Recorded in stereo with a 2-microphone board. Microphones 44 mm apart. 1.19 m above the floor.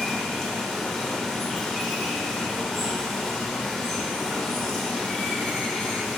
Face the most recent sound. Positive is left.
turn(degrees=10)  # may be behind; listen again after turning